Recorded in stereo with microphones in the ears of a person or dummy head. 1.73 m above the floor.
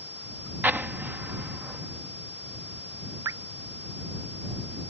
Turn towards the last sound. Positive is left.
turn(degrees=-15)  # may be behind; listen again after turning